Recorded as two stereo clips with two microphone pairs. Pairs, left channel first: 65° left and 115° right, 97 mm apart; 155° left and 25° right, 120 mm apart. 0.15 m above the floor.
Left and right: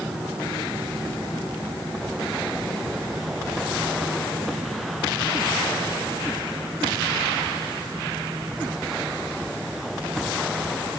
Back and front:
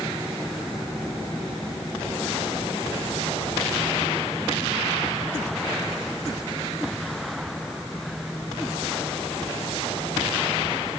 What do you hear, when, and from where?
Only background noise.